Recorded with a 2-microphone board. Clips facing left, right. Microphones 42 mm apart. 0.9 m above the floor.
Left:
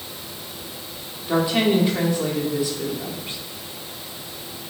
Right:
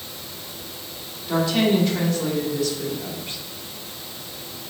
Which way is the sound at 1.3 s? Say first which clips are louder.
Left 1 dB; 15° left (ahead or behind).